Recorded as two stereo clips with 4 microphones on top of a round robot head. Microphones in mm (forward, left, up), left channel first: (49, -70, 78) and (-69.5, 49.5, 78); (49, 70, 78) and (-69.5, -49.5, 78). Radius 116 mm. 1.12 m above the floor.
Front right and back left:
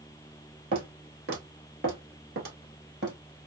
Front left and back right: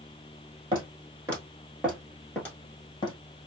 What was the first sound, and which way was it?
Footsteps, 165° left.